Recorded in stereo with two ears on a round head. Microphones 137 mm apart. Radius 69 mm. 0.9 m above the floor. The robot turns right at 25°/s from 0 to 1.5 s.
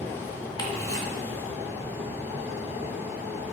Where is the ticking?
30° left (ahead or behind), 1.0 m; by 1.1 s 20° left (ahead or behind), 1.0 m.